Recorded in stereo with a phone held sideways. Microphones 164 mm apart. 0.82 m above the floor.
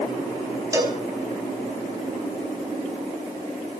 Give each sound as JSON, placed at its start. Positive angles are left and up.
{"t": 0.7, "sound": "a cowbell", "side_deg": -20, "distance_m": 4.0}